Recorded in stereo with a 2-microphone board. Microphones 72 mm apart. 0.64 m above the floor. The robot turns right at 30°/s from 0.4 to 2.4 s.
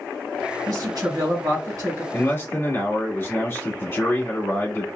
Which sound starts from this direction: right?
A woman speaking, at 0.7 s.